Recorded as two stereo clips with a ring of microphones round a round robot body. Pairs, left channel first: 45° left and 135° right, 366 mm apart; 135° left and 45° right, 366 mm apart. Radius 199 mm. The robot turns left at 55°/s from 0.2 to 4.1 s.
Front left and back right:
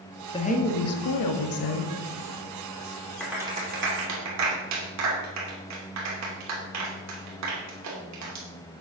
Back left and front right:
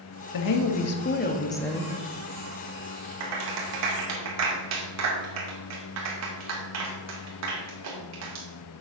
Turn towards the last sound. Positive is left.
turn(degrees=-90)